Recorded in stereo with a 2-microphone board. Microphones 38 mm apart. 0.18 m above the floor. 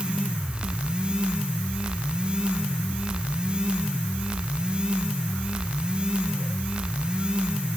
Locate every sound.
Only background noise.